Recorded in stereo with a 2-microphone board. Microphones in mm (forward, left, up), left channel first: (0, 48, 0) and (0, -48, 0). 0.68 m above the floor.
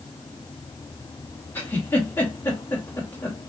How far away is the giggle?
About 2.0 m.